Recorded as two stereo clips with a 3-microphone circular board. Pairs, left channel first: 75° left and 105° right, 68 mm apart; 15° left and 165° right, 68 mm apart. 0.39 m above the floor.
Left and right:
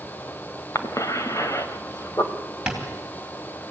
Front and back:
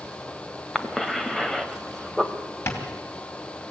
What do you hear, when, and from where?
0.8 s a cough: 100° left, 1.8 m
2.7 s tapping: 25° right, 3 m